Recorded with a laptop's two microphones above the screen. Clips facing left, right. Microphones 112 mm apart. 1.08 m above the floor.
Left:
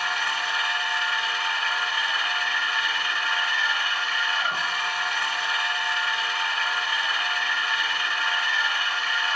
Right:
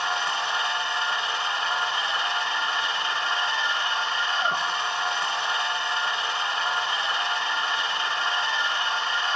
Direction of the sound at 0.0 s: 25° right (ahead or behind).